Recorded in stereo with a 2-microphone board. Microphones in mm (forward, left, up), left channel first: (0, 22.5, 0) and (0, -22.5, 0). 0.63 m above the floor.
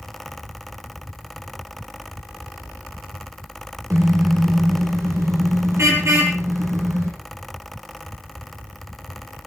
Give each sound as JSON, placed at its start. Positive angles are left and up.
{"t": 3.9, "sound": "a car horn", "side_deg": -70, "distance_m": 5.0}